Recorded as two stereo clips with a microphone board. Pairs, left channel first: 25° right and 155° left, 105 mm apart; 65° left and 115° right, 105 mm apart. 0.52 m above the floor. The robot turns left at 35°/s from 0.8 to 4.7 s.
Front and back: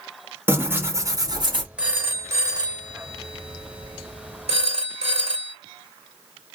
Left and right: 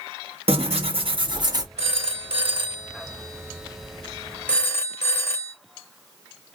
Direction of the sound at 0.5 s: 135° right.